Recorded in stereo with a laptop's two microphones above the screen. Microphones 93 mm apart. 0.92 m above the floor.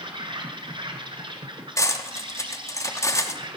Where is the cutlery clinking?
35° left (ahead or behind), 0.9 m.